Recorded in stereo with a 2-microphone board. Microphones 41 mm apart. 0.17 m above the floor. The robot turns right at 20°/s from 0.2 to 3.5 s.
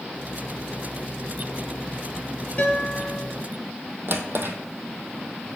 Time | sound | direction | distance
2.6 | a guitar | 35° left (ahead or behind) | 3.5 m
4.1 | a drawer | 60° right (ahead or behind) | 1.4 m